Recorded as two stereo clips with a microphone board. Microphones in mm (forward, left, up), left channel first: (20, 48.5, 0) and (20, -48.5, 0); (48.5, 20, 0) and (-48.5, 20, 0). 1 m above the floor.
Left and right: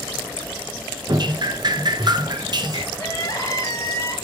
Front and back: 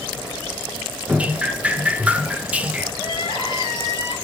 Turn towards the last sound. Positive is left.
turn(degrees=35)